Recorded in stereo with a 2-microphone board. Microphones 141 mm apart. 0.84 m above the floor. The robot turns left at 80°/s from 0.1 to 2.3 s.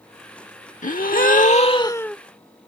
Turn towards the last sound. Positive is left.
turn(degrees=-5)